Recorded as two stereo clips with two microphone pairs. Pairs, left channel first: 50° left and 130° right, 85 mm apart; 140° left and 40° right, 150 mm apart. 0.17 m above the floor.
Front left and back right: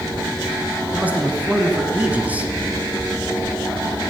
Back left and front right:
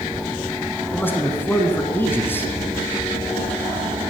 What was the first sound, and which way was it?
A man speaking, 160° right.